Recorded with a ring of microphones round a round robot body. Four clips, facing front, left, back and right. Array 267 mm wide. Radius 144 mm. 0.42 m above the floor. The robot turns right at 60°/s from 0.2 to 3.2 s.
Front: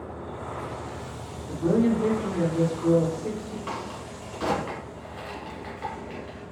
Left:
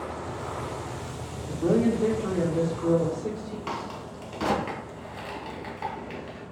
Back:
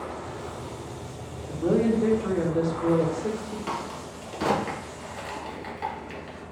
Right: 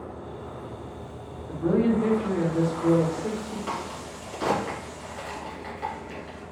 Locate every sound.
1.5 s a woman speaking: 105° left, 0.9 m; by 3.6 s 150° right, 0.9 m
3.7 s a crack: 130° left, 1.1 m